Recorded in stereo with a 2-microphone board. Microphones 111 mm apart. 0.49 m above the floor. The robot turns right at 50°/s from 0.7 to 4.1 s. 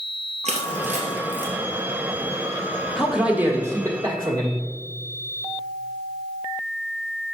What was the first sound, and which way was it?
Crushing, 75° right (ahead or behind).